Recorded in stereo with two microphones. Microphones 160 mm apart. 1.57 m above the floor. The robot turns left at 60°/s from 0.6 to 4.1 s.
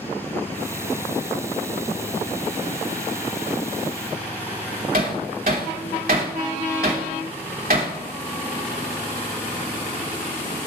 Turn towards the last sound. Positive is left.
turn(degrees=-70)  # may be behind; listen again after turning